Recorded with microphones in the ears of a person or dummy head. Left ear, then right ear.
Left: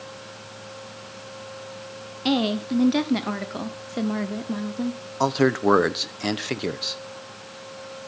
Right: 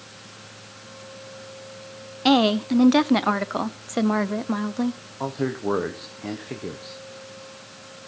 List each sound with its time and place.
2.2 s a woman speaking: 45° right (ahead or behind), 0.7 m
5.2 s a man speaking: 70° left (ahead or behind), 0.9 m